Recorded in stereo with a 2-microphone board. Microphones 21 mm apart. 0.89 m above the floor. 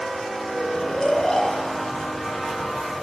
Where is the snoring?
50° left (ahead or behind), 1.4 m.